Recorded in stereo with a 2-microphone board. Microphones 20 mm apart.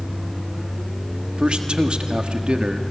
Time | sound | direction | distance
1.4 | a man speaking | 65° right (ahead or behind) | 1.7 m